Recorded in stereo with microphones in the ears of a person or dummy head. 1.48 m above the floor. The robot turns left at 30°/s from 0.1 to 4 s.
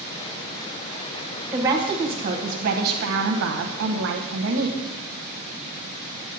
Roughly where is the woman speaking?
Ahead.